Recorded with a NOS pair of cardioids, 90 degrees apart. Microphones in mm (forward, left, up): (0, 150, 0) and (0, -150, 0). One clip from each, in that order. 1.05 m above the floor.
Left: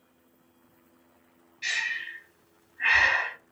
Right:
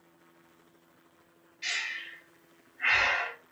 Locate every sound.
1.6 s breathing: straight ahead, 0.8 m